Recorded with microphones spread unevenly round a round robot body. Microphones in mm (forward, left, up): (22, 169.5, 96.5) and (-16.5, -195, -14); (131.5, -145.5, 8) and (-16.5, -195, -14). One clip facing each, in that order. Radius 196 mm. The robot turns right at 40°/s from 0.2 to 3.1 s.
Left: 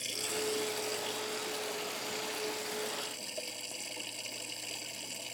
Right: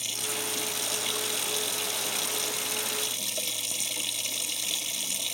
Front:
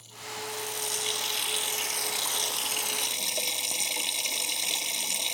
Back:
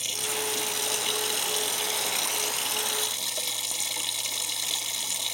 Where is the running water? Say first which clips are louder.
Left 1 dB, back 6 dB; 170° right; by 5.3 s 55° right.